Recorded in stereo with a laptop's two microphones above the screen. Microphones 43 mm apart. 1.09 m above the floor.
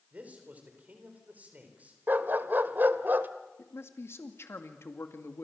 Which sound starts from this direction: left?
A man speaking, at 3.6 s.